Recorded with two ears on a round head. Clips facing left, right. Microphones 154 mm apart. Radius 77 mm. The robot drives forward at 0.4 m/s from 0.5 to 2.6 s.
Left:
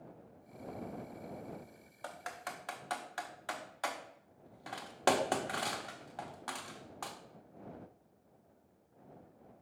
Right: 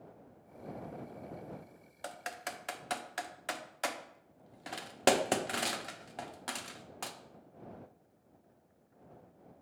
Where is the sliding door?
I don't hear a sliding door.